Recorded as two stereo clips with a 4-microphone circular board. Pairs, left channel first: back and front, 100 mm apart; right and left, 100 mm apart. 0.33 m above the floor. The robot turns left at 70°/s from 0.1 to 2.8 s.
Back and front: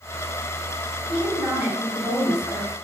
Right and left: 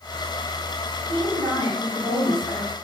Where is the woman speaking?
100° left, 2.0 m; by 2.7 s 10° right, 2.0 m.